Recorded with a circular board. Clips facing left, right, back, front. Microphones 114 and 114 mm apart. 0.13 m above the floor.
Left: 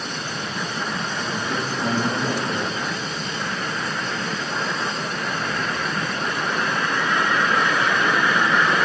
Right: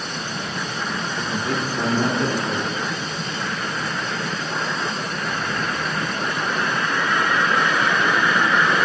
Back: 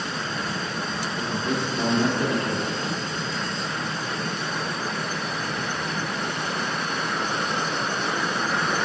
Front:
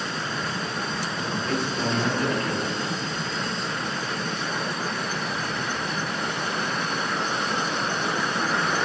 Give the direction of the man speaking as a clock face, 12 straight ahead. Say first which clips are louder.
Right 3 dB, back 1 dB; 4 o'clock.